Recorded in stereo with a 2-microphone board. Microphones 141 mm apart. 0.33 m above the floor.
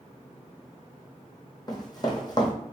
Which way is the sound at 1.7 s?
30° left (ahead or behind).